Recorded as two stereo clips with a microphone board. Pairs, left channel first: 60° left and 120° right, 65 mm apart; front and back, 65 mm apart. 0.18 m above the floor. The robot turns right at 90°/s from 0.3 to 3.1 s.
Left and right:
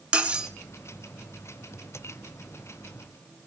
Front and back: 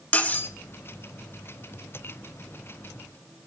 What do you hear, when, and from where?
0.1 s cutlery clinking: 60° right, 0.9 m; by 0.5 s 40° right, 0.9 m